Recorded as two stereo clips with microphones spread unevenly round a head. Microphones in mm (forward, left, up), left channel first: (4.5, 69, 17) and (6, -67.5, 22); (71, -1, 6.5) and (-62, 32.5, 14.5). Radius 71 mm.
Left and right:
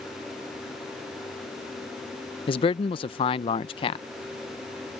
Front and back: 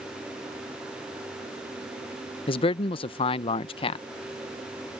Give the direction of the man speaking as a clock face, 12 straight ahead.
11 o'clock.